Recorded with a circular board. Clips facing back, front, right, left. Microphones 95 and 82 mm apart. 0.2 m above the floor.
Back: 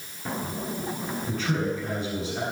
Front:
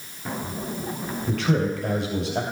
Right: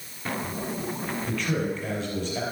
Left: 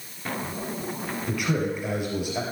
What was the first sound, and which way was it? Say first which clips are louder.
A man speaking: front 5 dB, left 2 dB; 15° left.